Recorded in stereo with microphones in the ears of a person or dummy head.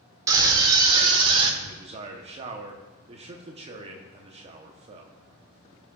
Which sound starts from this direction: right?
A man speaking, at 1.6 s.